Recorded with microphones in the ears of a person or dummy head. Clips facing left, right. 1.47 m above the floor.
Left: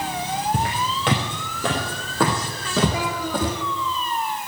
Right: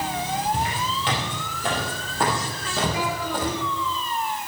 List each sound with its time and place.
0.5 s footsteps: 45° left (ahead or behind), 3.5 m; by 3.5 s 65° left (ahead or behind), 3.5 m
2.9 s a child speaking: 80° left, 3.5 m